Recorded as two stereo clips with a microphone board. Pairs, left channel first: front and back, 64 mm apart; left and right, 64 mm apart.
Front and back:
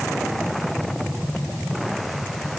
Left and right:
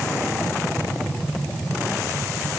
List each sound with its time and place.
Only background noise.